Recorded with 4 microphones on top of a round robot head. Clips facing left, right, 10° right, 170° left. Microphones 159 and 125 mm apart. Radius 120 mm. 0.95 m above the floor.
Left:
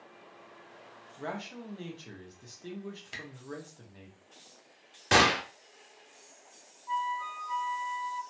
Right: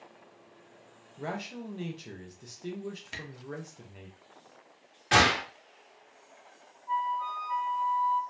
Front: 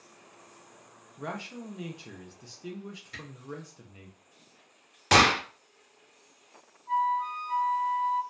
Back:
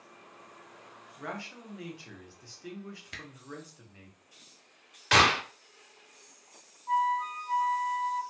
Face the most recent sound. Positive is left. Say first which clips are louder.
# right 2 dB, front 1 dB
turn(degrees=125)